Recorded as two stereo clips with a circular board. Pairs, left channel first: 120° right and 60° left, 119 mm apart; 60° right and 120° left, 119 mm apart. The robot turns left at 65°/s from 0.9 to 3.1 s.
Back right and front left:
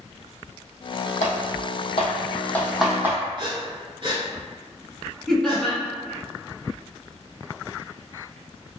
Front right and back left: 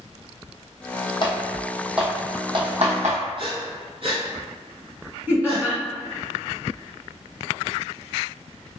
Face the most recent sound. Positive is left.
turn(degrees=165)